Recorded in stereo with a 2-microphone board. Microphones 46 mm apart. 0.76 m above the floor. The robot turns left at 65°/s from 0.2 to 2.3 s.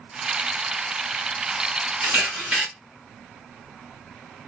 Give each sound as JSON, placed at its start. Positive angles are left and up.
{"t": 2.0, "sound": "a camera shutter", "side_deg": -45, "distance_m": 1.5}